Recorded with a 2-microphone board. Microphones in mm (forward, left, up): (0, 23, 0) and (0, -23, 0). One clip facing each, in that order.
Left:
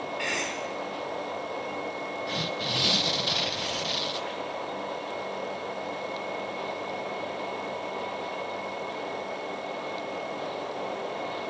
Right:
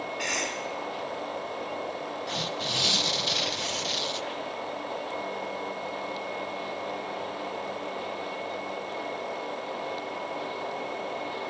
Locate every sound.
0.2 s a cough: 10° left (ahead or behind), 7 m
2.3 s tearing paper: centre (ahead or behind), 0.8 m